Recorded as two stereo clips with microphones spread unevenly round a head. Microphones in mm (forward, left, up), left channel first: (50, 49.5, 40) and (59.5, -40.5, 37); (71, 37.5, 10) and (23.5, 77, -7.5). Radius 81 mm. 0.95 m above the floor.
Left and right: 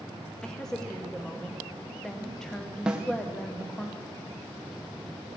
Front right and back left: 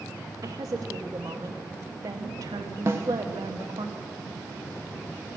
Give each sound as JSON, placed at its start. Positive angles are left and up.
{"t": 0.4, "sound": "a woman speaking", "azimuth_deg": 180, "distance_m": 0.9}
{"t": 2.9, "sound": "a snare drum", "azimuth_deg": -165, "distance_m": 0.7}